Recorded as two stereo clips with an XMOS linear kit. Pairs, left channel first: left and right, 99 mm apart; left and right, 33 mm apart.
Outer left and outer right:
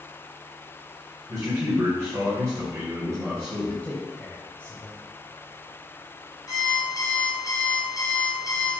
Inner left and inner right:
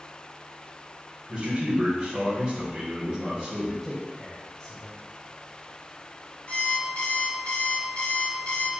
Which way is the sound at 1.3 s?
35° right (ahead or behind).